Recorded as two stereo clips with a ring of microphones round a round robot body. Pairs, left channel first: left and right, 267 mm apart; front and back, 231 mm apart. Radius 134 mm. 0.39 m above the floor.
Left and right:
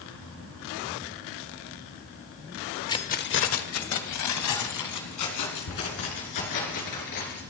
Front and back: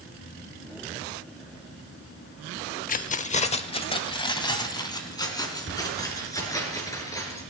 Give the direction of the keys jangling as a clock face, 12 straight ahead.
11 o'clock.